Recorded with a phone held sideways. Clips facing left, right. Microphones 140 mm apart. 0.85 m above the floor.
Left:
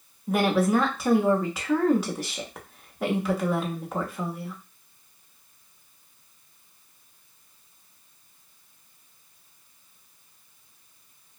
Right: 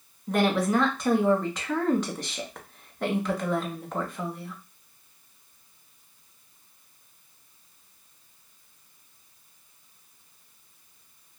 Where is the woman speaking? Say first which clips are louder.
Left 1 dB; 5° left (ahead or behind), 0.8 m.